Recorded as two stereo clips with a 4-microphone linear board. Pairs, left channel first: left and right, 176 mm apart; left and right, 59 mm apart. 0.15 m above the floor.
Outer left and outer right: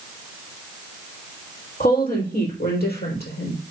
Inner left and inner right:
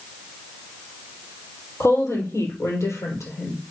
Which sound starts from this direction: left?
A woman speaking, at 1.8 s.